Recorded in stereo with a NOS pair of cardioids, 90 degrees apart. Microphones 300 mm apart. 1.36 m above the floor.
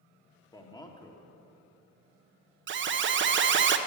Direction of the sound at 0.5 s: 15° left.